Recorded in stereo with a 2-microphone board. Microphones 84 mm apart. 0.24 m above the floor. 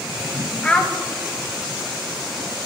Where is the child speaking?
15° left (ahead or behind), 0.9 m.